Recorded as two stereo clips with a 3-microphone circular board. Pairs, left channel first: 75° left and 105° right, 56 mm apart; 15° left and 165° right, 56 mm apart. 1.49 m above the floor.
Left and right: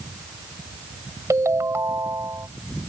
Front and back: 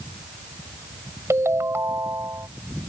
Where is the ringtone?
130° right.